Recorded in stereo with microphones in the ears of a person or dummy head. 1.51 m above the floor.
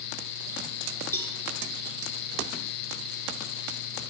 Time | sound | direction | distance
1.1 | a cowbell | 15° left (ahead or behind) | 0.8 m